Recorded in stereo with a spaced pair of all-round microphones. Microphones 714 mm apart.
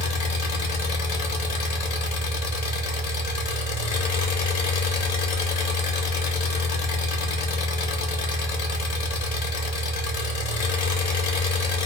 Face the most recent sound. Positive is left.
turn(degrees=60)  # may be behind; listen again after turning